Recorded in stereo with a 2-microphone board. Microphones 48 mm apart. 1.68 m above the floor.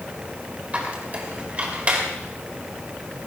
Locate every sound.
0.7 s a squeak: 30° right (ahead or behind), 3 m